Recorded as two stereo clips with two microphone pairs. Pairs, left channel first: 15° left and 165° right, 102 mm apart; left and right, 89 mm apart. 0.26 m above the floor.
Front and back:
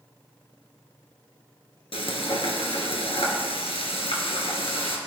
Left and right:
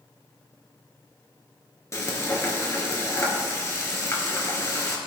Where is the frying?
35° left, 2.0 m.